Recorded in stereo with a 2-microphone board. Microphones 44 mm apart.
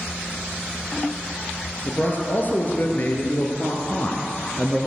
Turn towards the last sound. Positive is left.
turn(degrees=25)  # may be behind; listen again after turning